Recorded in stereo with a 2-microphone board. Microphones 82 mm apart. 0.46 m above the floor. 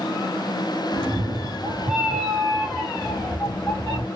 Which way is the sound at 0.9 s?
50° right (ahead or behind).